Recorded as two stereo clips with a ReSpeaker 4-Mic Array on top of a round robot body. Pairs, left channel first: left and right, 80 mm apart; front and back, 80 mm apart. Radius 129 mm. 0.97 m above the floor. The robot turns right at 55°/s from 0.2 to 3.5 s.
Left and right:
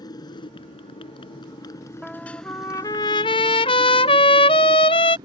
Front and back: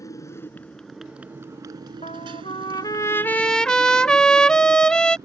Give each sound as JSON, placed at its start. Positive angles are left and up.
{"t": 0.0, "sound": "a motorcycle", "azimuth_deg": 50}
{"t": 2.0, "sound": "a trumpet", "azimuth_deg": 0}